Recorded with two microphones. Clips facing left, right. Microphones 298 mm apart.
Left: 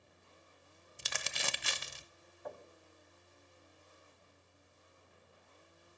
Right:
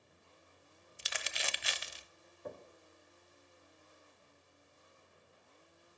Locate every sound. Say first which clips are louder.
1.0 s crumpling: left 1 dB; 55° left (ahead or behind), 0.6 m
2.5 s knocking: right 1 dB; 30° right (ahead or behind), 1.2 m